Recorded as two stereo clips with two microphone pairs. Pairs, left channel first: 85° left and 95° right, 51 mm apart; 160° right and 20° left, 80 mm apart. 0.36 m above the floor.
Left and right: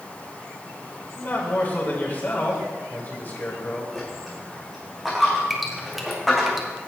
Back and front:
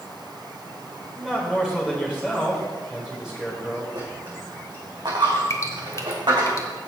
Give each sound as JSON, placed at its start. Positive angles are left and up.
{"t": 1.1, "sound": "a man speaking", "azimuth_deg": 100, "distance_m": 1.7}
{"t": 4.0, "sound": "a dropped coin", "azimuth_deg": -5, "distance_m": 3.0}
{"t": 5.5, "sound": "dripping", "azimuth_deg": 180, "distance_m": 1.3}